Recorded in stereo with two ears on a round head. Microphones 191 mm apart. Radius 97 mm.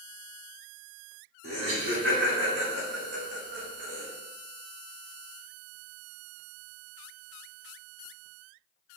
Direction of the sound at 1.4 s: 55° right (ahead or behind).